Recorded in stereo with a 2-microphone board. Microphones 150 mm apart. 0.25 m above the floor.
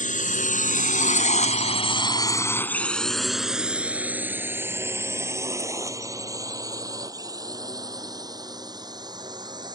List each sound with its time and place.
0.0 s a drone: 60° left (ahead or behind); by 9.8 s 30° right (ahead or behind)